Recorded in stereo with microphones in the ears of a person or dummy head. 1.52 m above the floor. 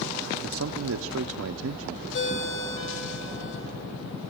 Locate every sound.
0.4 s a man speaking: 70° right (ahead or behind), 0.5 m
2.1 s a ringtone: 60° left (ahead or behind), 2 m